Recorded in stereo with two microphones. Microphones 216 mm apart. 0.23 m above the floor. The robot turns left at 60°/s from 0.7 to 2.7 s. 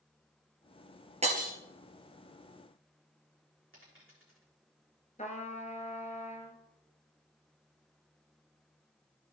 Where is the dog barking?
No dog barking in this recording.